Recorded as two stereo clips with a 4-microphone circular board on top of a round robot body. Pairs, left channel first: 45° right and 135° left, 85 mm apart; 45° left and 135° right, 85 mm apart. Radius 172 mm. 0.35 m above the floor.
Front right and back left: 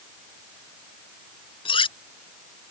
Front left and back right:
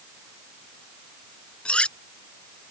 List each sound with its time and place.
1.6 s cutlery clinking: 30° right